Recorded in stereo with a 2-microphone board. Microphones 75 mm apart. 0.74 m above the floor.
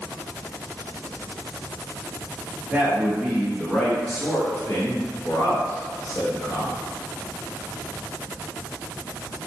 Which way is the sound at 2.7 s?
15° right (ahead or behind).